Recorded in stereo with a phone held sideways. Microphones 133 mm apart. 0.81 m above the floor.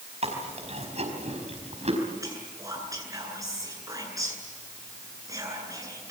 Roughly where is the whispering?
Right.